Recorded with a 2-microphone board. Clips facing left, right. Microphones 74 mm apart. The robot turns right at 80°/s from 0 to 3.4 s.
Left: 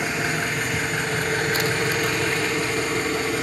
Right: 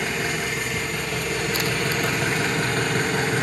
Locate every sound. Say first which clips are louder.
0.0 s an engine running: left 1 dB; 15° left, 2 m; by 3.4 s 70° right, 2 m